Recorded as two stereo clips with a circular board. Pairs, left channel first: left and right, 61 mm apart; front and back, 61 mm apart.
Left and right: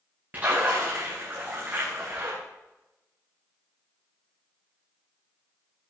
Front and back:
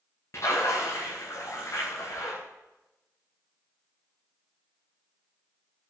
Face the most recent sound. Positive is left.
turn(degrees=-35)